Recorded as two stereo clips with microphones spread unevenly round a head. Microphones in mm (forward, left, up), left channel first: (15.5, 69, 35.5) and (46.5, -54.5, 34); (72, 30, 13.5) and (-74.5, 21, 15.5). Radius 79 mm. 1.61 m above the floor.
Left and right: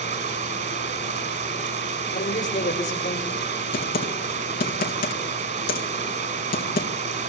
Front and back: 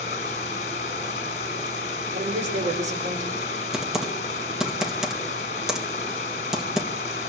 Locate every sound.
0.0 s running water: 50° right, 6 m
2.1 s a man speaking: 145° left, 6 m
3.7 s typing on a keyboard: 95° left, 2 m